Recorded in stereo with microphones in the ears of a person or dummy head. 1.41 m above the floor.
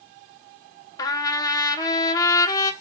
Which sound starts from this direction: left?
A trumpet, at 1.0 s.